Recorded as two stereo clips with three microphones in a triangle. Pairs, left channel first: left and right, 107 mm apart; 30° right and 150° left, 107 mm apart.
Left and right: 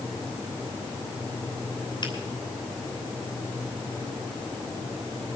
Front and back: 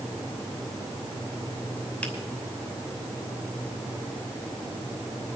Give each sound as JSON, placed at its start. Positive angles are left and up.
{"t": 2.0, "sound": "a finger snap", "azimuth_deg": 45, "distance_m": 3.0}